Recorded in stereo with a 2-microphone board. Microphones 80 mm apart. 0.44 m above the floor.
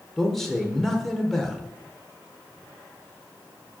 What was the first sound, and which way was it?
A man speaking, 5° left (ahead or behind).